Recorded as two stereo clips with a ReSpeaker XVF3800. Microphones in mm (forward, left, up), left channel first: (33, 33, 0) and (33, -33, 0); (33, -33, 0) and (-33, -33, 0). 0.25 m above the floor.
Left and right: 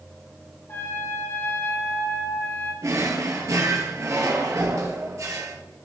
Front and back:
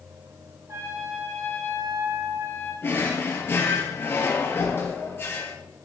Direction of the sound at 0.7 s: 140° left.